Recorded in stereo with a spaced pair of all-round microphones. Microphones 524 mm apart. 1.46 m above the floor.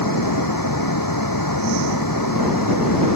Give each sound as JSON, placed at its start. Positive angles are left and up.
{"t": 0.0, "sound": "a fan", "side_deg": 40}